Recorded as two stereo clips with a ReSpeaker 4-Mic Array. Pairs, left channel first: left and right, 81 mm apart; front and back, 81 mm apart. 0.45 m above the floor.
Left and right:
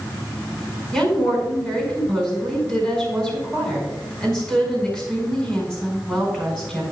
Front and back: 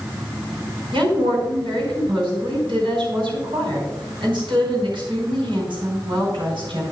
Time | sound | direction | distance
0.9 | a woman speaking | 170° left | 4.5 m